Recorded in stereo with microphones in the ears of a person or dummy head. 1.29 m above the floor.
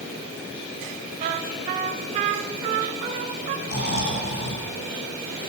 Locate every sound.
1.2 s a trumpet: 40° right (ahead or behind), 1.7 m
3.7 s snoring: 65° left (ahead or behind), 5.5 m